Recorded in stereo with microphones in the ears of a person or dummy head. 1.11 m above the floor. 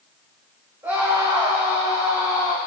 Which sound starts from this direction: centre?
A scream, at 0.8 s.